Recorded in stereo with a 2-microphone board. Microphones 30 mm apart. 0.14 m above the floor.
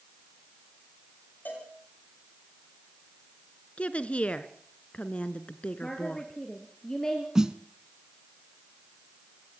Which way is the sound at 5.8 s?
20° left (ahead or behind).